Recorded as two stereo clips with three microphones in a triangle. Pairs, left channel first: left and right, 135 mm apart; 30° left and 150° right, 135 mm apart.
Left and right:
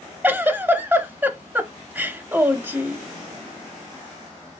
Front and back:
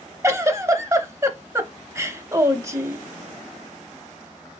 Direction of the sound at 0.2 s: 140° right.